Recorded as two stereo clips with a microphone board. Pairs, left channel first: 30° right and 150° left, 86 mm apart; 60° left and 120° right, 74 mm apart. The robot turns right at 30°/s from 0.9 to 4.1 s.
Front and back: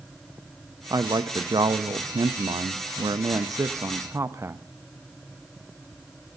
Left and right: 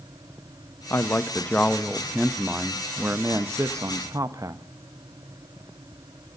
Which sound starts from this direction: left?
A man speaking, at 0.9 s.